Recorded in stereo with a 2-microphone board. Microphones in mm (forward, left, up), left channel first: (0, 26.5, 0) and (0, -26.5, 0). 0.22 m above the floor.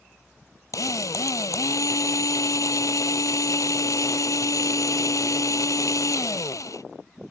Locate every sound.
0.7 s a drill: 80° left